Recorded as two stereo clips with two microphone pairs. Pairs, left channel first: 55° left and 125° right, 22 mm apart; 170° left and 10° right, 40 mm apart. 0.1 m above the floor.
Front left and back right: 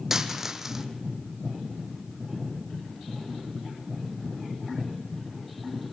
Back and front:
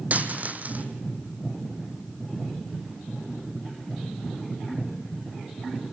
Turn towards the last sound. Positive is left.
turn(degrees=-55)